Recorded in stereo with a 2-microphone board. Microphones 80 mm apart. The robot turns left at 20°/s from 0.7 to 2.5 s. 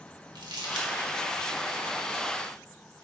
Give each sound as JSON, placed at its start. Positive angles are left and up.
{"t": 0.3, "sound": "crumpling", "side_deg": -60, "distance_m": 1.5}